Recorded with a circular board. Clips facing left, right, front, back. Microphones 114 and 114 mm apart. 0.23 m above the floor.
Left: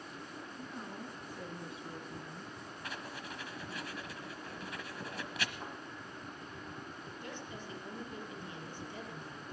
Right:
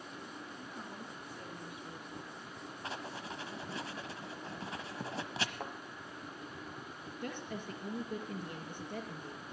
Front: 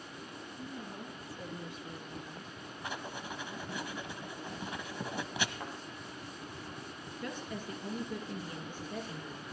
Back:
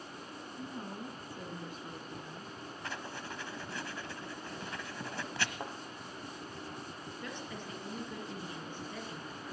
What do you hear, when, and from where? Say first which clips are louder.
0.6 s a woman speaking: left 2 dB, back 2 dB; 175° right, 3 m; by 2.6 s 115° left, 2.5 m
2.8 s writing: right 3 dB, front 2 dB; 60° right, 1.0 m
5.6 s a thud: right 2 dB, back 1 dB; 120° right, 1.9 m
7.2 s a woman speaking: right 6 dB, front 4 dB; 80° right, 3.5 m